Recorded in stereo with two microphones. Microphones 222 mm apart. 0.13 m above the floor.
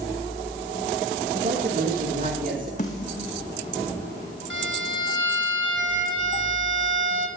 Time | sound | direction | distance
1.3 | a man speaking | 40° right (ahead or behind) | 9.5 m
2.8 | a snare drum | 35° left (ahead or behind) | 4 m
4.5 | a violin | 70° right (ahead or behind) | 2.5 m